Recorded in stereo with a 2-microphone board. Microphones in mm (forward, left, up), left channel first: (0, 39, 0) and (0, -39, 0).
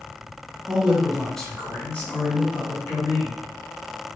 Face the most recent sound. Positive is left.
turn(degrees=45)  # may be behind; listen again after turning